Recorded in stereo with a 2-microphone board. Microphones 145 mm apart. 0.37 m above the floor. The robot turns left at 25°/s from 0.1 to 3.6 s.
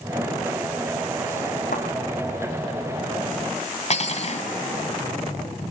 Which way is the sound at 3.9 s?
50° left (ahead or behind).